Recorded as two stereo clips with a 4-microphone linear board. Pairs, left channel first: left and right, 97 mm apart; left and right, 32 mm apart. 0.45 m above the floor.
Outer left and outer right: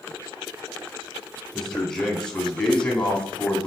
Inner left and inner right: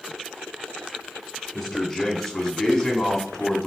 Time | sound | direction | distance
1.5 | a man speaking | 5° left (ahead or behind) | 3.5 m